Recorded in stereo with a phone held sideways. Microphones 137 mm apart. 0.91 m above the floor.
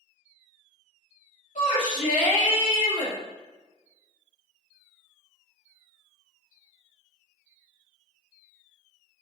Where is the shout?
70° left (ahead or behind), 1.5 m.